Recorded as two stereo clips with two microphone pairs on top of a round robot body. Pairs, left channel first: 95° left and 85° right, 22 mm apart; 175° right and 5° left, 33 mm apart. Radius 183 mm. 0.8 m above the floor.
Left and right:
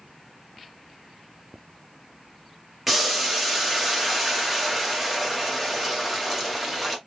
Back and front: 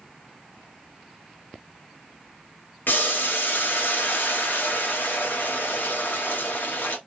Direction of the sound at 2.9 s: 175° right.